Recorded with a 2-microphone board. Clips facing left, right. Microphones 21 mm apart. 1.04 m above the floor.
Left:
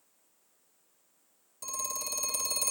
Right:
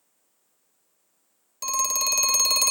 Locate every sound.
1.6 s a phone ringing: 70° right (ahead or behind), 0.7 m